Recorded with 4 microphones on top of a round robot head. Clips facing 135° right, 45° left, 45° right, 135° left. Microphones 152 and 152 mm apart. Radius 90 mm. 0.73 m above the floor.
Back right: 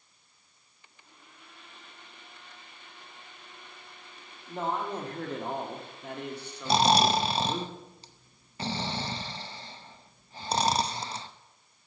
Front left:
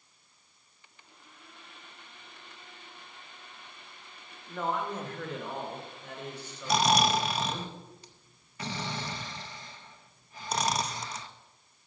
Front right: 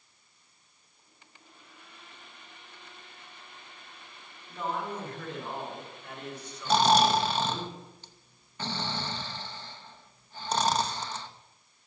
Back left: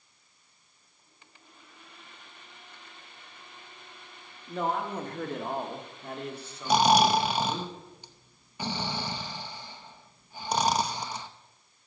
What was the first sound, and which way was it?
A man speaking, 160° left.